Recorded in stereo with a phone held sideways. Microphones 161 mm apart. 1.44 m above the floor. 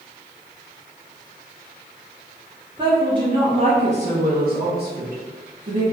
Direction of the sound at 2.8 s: 25° right (ahead or behind).